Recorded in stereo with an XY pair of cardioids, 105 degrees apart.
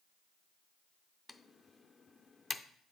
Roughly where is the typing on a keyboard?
Ahead left.